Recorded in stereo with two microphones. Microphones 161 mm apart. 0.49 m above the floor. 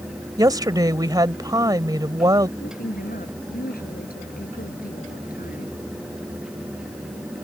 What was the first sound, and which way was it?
A woman speaking, 25° right (ahead or behind).